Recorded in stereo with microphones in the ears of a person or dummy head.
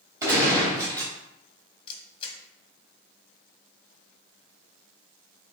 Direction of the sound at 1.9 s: 25° left (ahead or behind).